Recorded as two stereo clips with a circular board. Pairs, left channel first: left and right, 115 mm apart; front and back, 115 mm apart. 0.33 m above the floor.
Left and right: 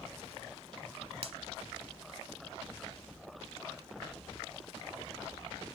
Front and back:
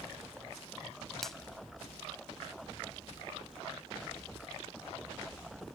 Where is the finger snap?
85° right.